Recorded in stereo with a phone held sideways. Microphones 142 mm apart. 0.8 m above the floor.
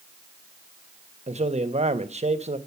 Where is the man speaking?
50° right (ahead or behind), 0.9 m.